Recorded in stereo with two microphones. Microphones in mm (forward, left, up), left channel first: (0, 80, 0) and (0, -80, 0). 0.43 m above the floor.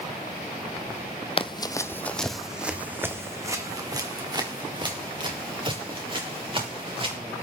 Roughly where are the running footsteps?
Left.